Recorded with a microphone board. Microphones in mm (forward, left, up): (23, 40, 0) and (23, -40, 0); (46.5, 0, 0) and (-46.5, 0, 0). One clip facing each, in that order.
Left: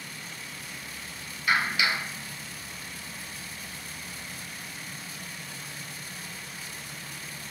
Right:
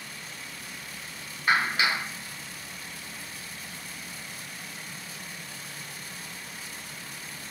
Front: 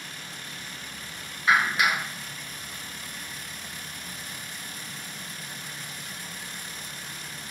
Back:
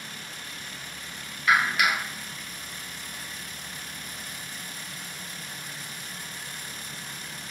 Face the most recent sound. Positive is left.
turn(degrees=-55)